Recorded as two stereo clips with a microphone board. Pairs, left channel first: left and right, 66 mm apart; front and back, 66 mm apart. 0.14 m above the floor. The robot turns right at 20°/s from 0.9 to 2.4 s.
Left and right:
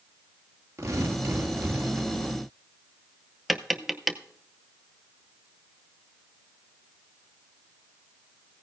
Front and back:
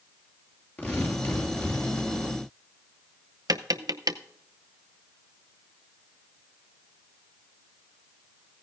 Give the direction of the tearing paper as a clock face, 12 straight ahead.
2 o'clock.